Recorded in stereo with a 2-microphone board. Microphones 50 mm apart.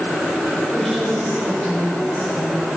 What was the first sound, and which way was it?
A woman speaking, 10° left (ahead or behind).